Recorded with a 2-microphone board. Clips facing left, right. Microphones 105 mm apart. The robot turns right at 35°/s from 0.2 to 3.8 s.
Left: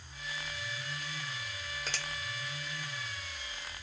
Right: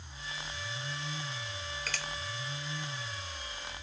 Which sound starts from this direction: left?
A finger snap, at 1.9 s.